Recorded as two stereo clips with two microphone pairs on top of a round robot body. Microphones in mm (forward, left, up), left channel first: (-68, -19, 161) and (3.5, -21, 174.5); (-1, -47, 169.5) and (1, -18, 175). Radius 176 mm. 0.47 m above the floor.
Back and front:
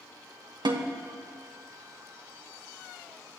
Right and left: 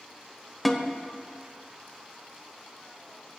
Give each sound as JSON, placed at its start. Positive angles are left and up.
{"t": 0.7, "sound": "a snare drum", "azimuth_deg": -10, "distance_m": 1.2}